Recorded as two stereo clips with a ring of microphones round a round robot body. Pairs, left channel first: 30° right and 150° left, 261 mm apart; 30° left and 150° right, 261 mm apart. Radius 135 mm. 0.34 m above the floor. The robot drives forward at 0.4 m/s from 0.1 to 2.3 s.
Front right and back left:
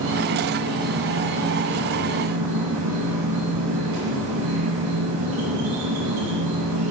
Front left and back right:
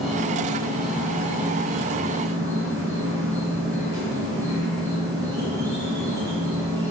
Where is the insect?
120° left, 3 m; by 6.9 s 135° left, 3.5 m.